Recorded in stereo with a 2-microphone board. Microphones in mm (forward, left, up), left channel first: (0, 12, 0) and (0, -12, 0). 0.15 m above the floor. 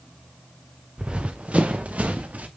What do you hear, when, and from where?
1.0 s running footsteps: 40° right (ahead or behind), 1.4 m; by 2.5 s 80° right, 2.5 m